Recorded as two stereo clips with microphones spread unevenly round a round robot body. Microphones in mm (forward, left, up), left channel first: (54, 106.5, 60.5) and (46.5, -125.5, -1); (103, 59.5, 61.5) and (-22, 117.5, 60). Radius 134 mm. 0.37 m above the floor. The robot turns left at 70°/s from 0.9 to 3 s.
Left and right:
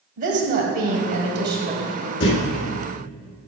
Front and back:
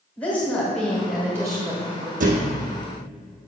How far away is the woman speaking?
About 1.4 m.